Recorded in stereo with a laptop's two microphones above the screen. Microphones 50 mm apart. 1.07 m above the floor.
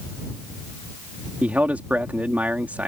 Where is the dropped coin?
No dropped coin in this recording.